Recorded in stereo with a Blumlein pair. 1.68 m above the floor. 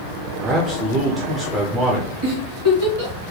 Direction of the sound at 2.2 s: 55° right.